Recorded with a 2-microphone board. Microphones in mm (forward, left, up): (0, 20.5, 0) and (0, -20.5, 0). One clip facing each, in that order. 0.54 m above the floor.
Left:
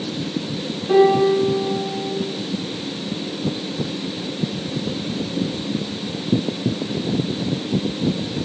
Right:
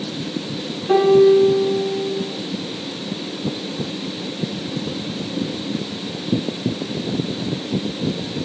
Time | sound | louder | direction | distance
0.9 | a piano | right 2 dB | 10° right (ahead or behind) | 7 m